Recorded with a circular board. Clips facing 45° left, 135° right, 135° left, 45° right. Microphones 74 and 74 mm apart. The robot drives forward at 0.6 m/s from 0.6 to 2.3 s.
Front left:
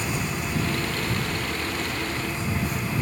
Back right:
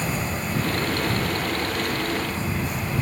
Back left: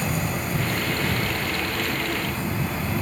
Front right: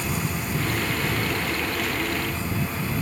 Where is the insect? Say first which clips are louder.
Back right 1 dB, back left 2 dB; 175° left.